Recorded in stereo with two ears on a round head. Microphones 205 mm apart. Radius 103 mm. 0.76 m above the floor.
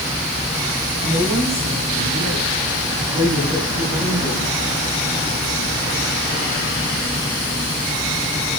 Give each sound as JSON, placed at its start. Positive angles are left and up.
{"t": 1.0, "sound": "a woman speaking", "side_deg": -15, "distance_m": 6.5}